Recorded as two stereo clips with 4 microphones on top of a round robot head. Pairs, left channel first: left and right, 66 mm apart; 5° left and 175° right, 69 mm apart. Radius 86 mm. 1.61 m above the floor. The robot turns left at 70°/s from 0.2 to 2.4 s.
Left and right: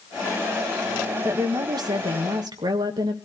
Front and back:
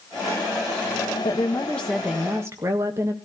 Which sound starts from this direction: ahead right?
A woman speaking, at 1.2 s.